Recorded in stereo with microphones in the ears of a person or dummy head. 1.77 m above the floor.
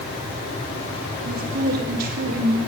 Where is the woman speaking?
55° right (ahead or behind), 3.5 m.